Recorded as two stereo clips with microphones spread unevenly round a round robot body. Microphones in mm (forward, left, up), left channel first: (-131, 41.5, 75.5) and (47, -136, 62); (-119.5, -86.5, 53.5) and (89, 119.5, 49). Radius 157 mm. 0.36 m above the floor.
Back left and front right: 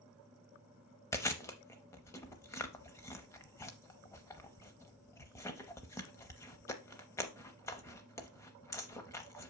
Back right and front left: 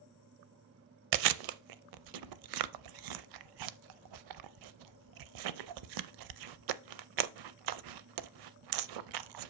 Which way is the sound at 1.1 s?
55° left.